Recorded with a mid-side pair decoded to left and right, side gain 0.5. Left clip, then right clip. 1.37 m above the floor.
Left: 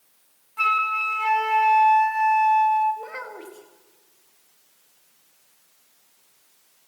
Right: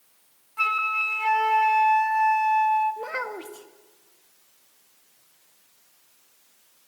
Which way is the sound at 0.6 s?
5° left.